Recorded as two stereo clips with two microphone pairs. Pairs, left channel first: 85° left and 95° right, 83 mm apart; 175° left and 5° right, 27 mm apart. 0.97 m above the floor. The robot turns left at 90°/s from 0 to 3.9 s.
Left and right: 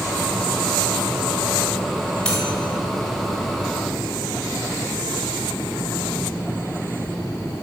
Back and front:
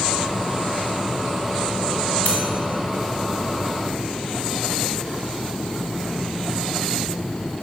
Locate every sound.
2.2 s cutlery clinking: 160° left, 2.5 m; by 2.4 s 145° left, 2.5 m